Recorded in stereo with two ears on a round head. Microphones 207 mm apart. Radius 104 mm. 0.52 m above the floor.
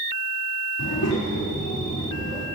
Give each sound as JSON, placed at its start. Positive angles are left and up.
{"t": 0.8, "sound": "a child speaking", "side_deg": 65, "distance_m": 3.5}